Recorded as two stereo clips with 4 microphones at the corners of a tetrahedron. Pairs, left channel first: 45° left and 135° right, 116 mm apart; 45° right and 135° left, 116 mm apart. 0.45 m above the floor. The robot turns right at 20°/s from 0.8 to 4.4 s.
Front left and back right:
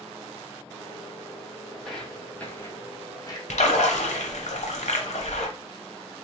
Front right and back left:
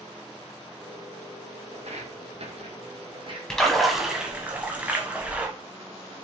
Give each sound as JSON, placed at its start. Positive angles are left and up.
{"t": 1.7, "sound": "footsteps", "azimuth_deg": 135, "distance_m": 1.0}
{"t": 3.5, "sound": "a splash", "azimuth_deg": 40, "distance_m": 0.8}